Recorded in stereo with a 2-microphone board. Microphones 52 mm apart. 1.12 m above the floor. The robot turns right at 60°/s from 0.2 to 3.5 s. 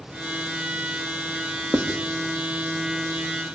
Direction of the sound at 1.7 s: 45° right (ahead or behind).